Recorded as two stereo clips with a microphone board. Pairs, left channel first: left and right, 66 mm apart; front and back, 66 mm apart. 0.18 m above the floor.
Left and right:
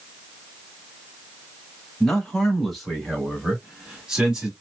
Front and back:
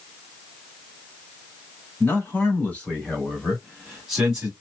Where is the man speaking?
10° left, 1.5 m; by 4.5 s 130° right, 1.3 m.